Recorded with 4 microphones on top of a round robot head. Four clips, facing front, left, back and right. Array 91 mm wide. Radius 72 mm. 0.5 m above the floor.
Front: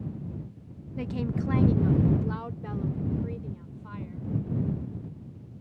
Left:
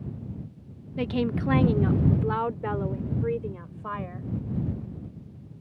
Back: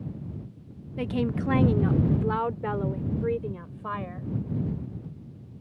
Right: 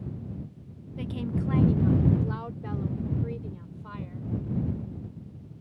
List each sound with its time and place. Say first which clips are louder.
1.0 s a woman speaking: left 5 dB, back 4 dB; 110° left; by 4.3 s 145° left